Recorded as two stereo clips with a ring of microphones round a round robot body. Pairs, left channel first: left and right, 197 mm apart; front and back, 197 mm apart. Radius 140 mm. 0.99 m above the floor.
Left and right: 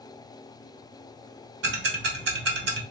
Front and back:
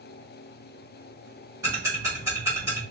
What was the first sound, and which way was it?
Ticking, 105° right.